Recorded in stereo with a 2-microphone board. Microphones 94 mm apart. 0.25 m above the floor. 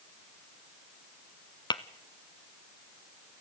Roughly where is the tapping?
Left.